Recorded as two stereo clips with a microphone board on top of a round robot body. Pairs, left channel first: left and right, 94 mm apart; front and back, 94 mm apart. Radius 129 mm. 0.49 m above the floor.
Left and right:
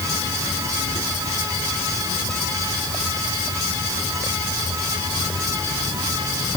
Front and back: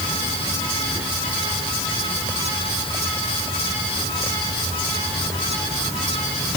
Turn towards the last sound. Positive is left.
No sound to turn to.